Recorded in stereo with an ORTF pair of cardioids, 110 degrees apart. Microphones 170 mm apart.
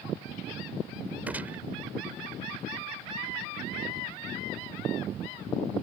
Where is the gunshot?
10° right.